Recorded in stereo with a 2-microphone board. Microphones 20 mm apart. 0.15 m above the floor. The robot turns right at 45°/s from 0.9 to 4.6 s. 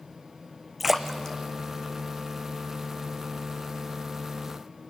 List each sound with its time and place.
0.8 s a splash: centre (ahead or behind), 1.6 m; by 2.6 s 75° left (ahead or behind), 1.6 m